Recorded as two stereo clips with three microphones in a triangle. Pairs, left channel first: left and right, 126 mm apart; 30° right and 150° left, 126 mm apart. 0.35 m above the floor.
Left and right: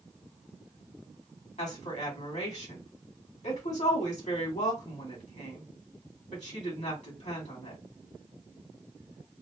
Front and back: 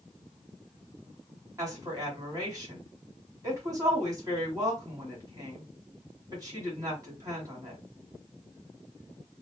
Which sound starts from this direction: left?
A woman speaking, at 1.6 s.